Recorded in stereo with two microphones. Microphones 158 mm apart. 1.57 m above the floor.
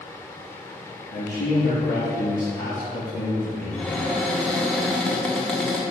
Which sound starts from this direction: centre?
A cupboard door, at 3.7 s.